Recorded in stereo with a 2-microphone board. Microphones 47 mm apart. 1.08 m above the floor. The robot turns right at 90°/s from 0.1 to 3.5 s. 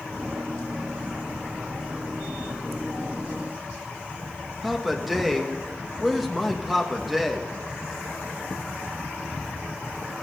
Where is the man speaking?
5° right (ahead or behind), 1.7 m.